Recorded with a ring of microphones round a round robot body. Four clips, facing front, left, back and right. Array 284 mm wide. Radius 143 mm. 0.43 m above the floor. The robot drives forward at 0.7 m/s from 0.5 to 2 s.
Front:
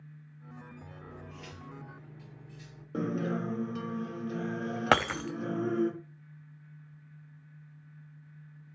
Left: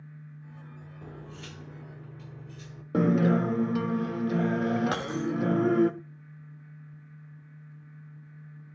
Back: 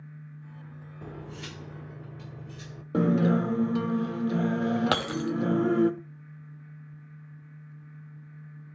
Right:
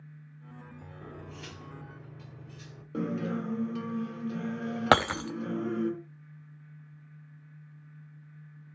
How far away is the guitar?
About 0.6 m.